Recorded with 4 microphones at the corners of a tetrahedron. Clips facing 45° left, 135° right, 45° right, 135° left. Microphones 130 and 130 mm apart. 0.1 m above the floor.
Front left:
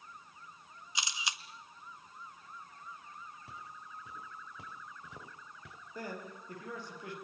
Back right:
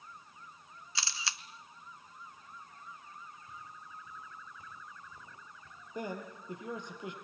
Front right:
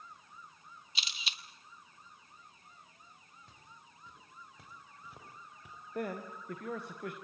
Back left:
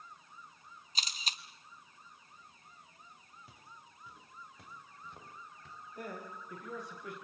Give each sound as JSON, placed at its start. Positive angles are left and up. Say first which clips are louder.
{"t": 0.9, "sound": "a camera shutter", "louder": "front left 1 dB, back left 3 dB", "azimuth_deg": 110, "distance_m": 1.1}
{"t": 3.5, "sound": "footsteps", "louder": "front left 1 dB, back left 1 dB", "azimuth_deg": 55, "distance_m": 5.5}
{"t": 6.0, "sound": "a man speaking", "louder": "back right 3 dB, front right 6 dB", "azimuth_deg": -65, "distance_m": 5.0}